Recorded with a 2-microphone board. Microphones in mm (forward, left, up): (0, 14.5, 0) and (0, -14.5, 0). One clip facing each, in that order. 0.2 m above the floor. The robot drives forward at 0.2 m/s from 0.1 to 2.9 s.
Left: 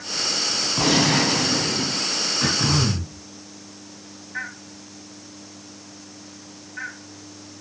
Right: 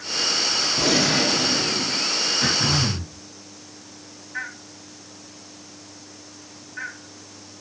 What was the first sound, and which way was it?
A gunshot, 35° left (ahead or behind).